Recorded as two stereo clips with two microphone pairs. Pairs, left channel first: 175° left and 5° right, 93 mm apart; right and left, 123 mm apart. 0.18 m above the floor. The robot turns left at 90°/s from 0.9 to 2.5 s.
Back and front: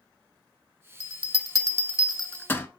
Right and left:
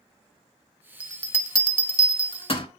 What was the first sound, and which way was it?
A bell, 15° left.